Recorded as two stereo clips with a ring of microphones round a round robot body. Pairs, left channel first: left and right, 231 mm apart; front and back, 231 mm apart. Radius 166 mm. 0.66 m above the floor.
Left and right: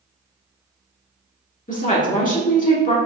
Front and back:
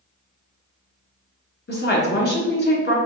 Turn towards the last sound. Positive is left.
turn(degrees=35)